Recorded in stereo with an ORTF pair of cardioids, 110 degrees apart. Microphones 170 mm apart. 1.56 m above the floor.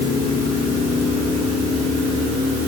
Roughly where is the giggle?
I don't hear a giggle.